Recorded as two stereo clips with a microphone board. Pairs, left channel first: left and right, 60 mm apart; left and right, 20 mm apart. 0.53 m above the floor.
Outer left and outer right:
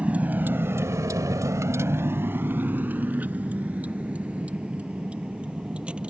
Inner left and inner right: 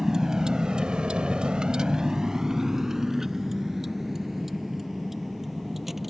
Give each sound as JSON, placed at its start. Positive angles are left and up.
{"t": 0.0, "sound": "a vehicle", "side_deg": -25}